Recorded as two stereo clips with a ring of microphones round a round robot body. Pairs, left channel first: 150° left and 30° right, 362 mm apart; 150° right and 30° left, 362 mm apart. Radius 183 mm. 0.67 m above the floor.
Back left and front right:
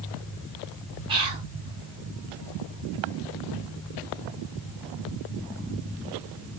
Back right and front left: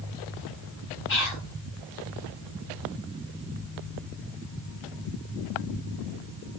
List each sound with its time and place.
1.1 s whispering: 100° right, 1.2 m